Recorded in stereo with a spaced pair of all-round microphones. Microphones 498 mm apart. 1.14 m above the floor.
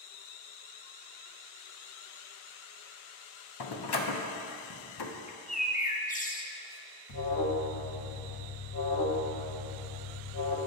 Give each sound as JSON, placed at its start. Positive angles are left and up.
{"t": 3.6, "sound": "a door slam", "side_deg": 50, "distance_m": 0.6}
{"t": 5.3, "sound": "a bird", "side_deg": 15, "distance_m": 0.5}
{"t": 7.1, "sound": "an alarm", "side_deg": 40, "distance_m": 1.0}